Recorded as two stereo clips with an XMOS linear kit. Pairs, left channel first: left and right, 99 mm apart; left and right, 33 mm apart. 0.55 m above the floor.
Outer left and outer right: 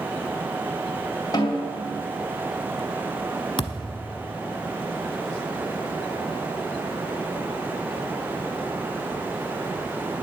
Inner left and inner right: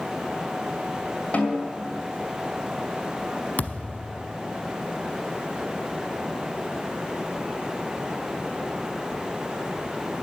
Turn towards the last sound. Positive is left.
turn(degrees=60)  # may be behind; listen again after turning